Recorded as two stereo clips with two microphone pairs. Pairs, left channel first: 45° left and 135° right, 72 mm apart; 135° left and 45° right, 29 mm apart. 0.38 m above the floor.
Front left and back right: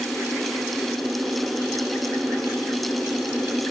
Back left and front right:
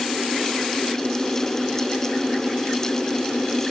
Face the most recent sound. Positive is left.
No sound to turn to.